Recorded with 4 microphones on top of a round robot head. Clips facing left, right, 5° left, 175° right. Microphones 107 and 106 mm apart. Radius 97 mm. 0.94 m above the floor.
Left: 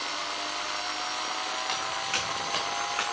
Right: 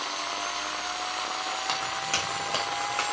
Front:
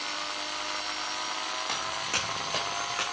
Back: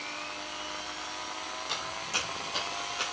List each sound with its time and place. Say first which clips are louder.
1.7 s footsteps: right 1 dB, front 3 dB; 40° right, 4 m; by 3.0 s 30° right, 5 m